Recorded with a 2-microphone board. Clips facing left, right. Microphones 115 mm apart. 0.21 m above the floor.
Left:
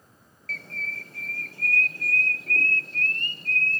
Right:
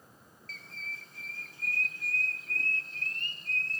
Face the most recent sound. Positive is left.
turn(degrees=70)  # may be behind; listen again after turning